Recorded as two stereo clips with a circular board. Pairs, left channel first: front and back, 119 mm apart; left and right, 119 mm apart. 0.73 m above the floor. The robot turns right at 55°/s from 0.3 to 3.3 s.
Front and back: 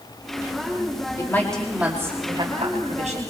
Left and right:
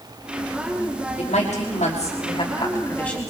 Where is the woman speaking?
60° left, 5 m; by 3.3 s 175° left, 5 m.